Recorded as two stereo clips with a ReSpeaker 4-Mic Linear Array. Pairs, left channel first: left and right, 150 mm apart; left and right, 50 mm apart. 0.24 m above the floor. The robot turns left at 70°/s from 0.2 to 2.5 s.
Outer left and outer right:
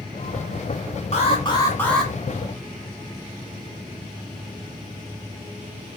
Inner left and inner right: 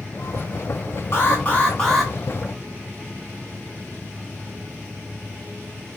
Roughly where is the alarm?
Ahead left.